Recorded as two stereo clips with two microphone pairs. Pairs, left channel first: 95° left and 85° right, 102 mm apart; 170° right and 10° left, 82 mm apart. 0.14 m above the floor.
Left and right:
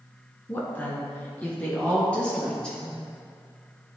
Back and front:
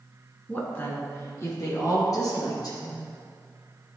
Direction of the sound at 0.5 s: 145° left.